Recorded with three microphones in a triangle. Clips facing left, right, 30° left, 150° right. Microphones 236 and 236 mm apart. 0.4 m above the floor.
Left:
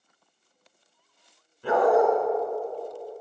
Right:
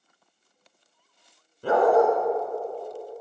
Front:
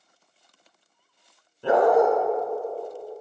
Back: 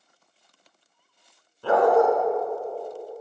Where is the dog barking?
45° right, 1.6 m.